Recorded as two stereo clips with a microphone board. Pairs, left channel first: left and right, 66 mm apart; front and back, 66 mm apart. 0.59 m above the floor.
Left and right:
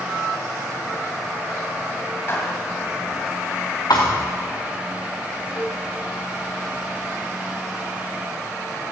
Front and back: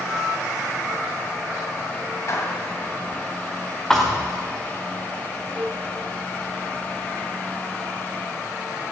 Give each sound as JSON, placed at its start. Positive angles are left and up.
{"t": 2.3, "sound": "a clap", "azimuth_deg": 40, "distance_m": 3.0}
{"t": 3.9, "sound": "a thud", "azimuth_deg": 80, "distance_m": 3.0}
{"t": 5.5, "sound": "dishes clattering", "azimuth_deg": 90, "distance_m": 2.5}